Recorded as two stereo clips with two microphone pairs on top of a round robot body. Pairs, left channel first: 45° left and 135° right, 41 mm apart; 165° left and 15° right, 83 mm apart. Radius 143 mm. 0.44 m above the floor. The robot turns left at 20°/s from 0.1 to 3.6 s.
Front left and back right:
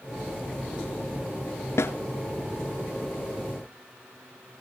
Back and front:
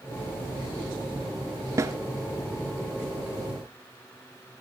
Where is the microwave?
I don't hear a microwave.